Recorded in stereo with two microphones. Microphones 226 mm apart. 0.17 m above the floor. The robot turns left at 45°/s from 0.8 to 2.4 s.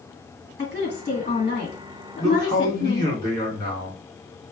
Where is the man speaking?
15° left (ahead or behind), 1.9 m; by 4.0 s 20° left (ahead or behind), 1.9 m.